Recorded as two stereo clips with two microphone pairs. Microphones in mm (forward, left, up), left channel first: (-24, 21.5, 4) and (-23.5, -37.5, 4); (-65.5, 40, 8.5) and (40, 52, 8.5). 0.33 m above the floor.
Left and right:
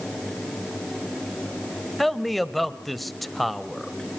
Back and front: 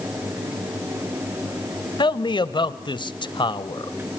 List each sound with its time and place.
2.0 s a man speaking: straight behind, 1.2 m